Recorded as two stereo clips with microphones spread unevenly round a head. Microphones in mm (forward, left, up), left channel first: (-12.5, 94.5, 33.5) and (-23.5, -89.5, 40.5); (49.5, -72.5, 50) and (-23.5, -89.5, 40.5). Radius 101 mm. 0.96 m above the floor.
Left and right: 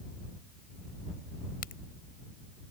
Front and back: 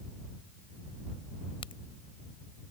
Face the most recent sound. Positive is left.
turn(degrees=40)